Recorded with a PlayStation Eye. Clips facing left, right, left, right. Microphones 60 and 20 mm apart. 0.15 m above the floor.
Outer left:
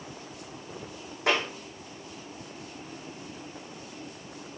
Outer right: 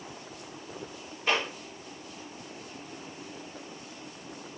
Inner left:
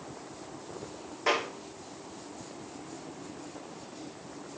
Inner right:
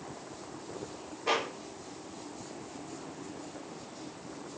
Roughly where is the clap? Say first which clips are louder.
Outer left 2 dB, inner left 2 dB; left.